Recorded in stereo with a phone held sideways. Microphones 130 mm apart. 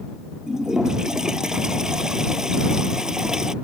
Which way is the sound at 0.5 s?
5° right (ahead or behind).